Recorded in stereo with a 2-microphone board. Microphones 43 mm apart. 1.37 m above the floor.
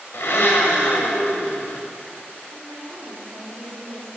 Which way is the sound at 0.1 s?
70° left (ahead or behind).